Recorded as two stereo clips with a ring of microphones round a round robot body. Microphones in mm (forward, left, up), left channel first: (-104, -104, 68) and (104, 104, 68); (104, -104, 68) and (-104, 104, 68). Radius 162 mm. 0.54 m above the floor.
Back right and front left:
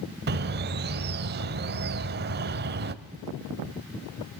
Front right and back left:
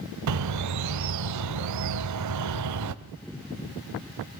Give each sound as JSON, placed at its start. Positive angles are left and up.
{"t": 0.3, "sound": "a bird", "azimuth_deg": 100, "distance_m": 0.6}